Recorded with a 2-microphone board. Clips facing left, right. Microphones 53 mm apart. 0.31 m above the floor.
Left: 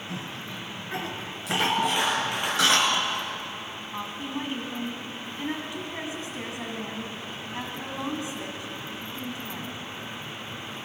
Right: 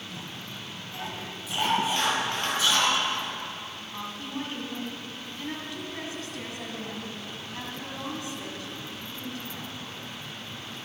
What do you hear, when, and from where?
0.1 s a cough: 75° left (ahead or behind), 5.5 m
2.0 s a clap: 15° left (ahead or behind), 7.5 m
3.9 s a woman speaking: 20° left (ahead or behind), 3 m